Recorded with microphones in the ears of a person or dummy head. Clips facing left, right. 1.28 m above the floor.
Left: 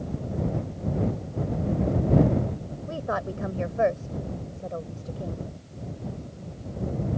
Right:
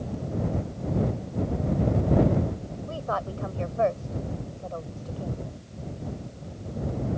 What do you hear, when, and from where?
2.9 s a woman speaking: 25° left (ahead or behind)